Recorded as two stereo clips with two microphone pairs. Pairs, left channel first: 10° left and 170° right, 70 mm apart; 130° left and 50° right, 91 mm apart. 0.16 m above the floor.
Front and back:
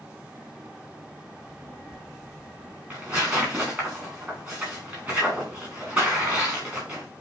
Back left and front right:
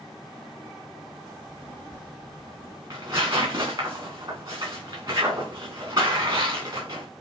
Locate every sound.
1.4 s a child speaking: 65° right, 4 m
2.9 s tearing paper: 95° right, 4 m